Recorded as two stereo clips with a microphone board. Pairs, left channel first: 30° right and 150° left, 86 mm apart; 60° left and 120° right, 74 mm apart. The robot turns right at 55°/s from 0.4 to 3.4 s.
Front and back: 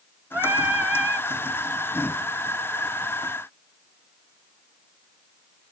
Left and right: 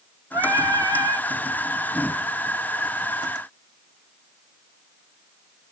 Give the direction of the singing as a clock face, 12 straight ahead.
5 o'clock.